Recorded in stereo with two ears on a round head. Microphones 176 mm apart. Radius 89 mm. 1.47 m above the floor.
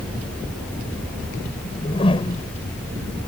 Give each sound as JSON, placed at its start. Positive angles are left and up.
{"t": 1.6, "sound": "a whoosh", "side_deg": 30}